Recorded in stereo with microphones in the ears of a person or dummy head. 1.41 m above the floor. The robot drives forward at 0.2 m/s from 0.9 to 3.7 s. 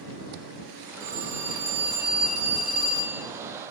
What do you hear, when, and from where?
1.0 s a phone ringing: 55° right (ahead or behind), 3.5 m; by 3.2 s 50° right (ahead or behind), 4 m